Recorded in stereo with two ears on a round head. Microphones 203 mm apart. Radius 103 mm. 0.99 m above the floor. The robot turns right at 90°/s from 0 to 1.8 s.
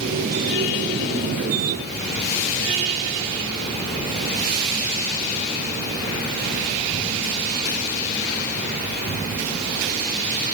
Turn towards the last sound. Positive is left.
No sound to turn to.